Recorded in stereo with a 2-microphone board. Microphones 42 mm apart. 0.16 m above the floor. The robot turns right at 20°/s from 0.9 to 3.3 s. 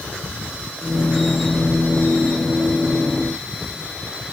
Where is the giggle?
No giggle in this recording.